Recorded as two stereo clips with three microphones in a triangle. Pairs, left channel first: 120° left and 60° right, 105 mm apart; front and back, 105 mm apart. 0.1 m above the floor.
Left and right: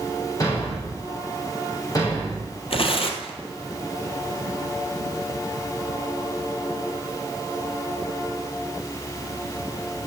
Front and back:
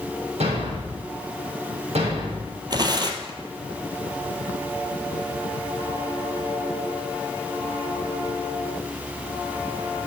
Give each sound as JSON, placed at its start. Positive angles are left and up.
{"t": 0.4, "sound": "a thud", "azimuth_deg": 175, "distance_m": 4.0}
{"t": 2.7, "sound": "tearing paper", "azimuth_deg": 135, "distance_m": 1.5}